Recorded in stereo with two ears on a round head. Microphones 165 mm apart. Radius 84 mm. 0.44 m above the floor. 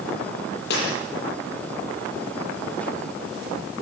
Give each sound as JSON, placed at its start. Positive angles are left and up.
{"t": 0.7, "sound": "breaking glass", "side_deg": 65, "distance_m": 10.0}